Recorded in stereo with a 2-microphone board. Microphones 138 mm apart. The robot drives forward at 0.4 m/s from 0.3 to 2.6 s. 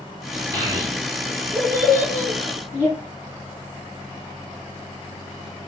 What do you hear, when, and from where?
0.5 s a child speaking: 30° right (ahead or behind), 0.9 m; by 2.9 s 20° right (ahead or behind), 1.5 m
1.9 s a cowbell: 55° left (ahead or behind), 1.6 m; by 2.0 s 60° left (ahead or behind), 1.6 m